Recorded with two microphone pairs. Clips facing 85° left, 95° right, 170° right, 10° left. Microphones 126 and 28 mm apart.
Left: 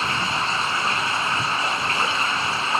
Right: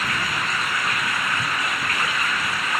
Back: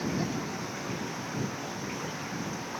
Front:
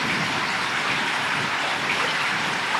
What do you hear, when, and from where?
0.0 s running water: 20° left